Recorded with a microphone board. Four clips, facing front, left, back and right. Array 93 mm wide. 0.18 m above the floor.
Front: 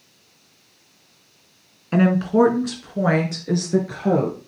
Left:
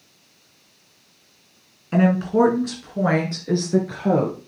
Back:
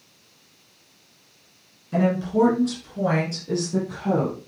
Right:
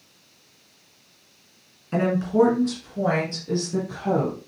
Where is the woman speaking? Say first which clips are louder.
Left 2 dB, front 4 dB; 15° left, 2.0 m; by 4.4 s 50° left, 3 m.